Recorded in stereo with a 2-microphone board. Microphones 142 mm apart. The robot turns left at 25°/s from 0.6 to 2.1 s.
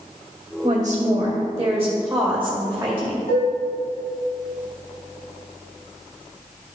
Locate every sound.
0.6 s a woman speaking: 120° right, 2.5 m; by 3.2 s 160° right, 2.5 m
3.3 s dishes clattering: 75° left (ahead or behind), 2.5 m